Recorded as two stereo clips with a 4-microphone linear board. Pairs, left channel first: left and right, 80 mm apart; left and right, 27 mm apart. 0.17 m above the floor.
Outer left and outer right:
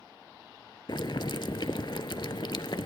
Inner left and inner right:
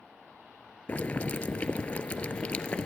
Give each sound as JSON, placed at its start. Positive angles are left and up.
{"t": 0.9, "sound": "boiling", "side_deg": 80, "distance_m": 0.6}